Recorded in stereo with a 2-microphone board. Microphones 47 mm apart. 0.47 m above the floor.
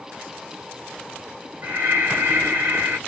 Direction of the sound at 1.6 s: 50° right (ahead or behind).